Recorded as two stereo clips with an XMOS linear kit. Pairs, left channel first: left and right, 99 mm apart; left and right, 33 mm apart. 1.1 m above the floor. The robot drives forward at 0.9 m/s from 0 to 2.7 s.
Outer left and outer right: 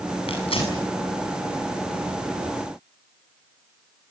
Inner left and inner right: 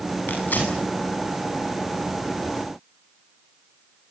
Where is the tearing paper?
65° left (ahead or behind), 8 m; by 0.8 s 60° left (ahead or behind), 8 m.